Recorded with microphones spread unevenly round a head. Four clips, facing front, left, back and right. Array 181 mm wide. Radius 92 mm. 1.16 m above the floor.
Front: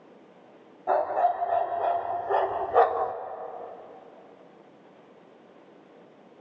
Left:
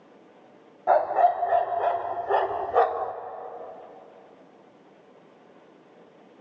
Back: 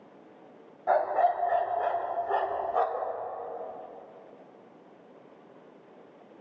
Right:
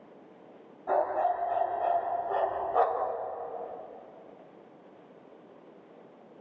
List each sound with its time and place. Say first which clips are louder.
0.9 s a dog barking: left 7 dB, front 1 dB; 95° left, 3 m; by 3.1 s 20° left, 1.3 m